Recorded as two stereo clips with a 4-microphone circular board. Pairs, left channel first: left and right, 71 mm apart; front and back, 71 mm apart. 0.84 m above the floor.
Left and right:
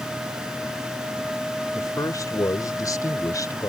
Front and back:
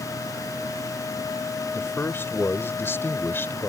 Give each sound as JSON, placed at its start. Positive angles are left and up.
{"t": 1.8, "sound": "a man speaking", "azimuth_deg": 55}